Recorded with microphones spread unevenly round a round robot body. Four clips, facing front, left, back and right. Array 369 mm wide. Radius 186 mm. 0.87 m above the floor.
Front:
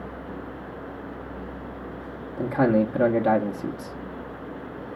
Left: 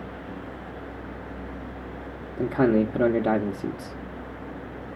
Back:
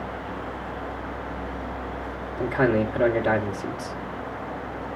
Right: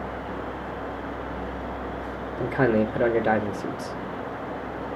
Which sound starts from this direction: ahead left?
A man speaking, at 2.4 s.